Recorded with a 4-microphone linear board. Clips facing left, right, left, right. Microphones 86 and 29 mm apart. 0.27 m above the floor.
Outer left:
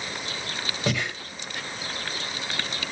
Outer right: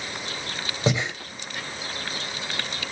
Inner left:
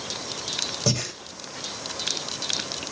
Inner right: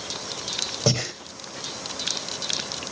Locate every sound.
0.9 s breathing: 20° right (ahead or behind), 1.5 m